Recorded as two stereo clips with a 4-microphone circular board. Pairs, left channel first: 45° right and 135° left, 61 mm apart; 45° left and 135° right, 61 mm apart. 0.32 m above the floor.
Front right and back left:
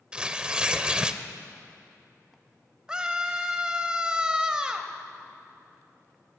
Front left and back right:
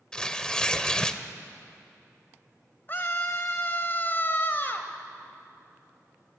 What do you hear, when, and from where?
0.1 s tearing paper: 95° left, 0.9 m
2.9 s a scream: 70° left, 1.7 m